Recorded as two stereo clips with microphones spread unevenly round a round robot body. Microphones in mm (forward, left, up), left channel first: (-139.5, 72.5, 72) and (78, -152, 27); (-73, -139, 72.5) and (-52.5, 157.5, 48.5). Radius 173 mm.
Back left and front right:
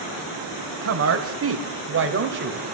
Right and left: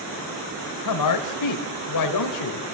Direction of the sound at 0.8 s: 75° right.